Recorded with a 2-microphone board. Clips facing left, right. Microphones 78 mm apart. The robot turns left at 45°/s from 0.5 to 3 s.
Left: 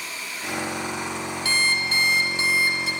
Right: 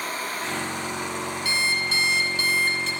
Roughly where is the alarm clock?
Left.